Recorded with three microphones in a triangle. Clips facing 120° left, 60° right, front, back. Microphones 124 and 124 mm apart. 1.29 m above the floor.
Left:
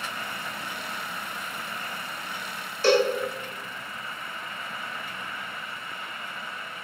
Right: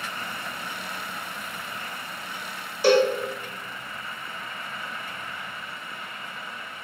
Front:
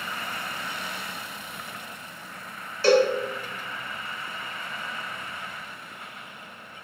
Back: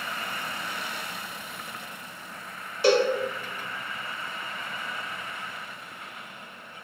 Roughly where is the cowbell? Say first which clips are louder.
Right 2 dB, front 2 dB; behind right.